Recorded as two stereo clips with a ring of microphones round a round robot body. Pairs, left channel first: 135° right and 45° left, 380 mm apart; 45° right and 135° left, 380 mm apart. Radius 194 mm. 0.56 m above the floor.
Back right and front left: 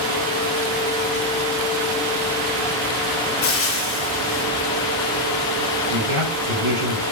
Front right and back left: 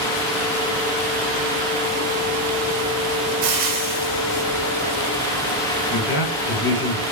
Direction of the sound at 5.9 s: 15° left.